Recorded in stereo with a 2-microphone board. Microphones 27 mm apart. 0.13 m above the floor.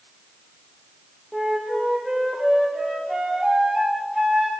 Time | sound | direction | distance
1.3 | a flute | centre (ahead or behind) | 6.5 m